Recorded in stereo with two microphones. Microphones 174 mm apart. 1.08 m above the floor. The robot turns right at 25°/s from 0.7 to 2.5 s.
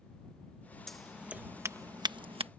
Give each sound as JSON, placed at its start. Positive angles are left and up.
{"t": 0.9, "sound": "scissors", "side_deg": 0}